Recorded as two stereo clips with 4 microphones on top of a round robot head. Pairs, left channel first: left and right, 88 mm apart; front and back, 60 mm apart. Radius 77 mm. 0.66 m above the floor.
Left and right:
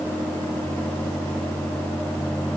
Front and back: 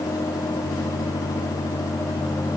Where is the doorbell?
I don't hear a doorbell.